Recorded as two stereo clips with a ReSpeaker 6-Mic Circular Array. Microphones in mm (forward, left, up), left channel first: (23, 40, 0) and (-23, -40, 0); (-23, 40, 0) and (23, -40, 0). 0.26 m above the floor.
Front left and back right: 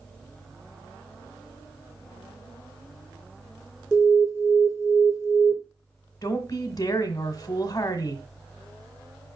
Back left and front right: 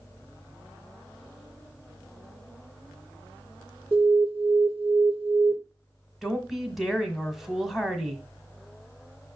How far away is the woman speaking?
About 1.5 m.